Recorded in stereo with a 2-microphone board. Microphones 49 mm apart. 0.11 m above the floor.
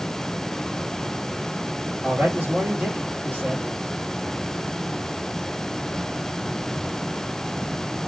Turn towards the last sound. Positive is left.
turn(degrees=-45)  # may be behind; listen again after turning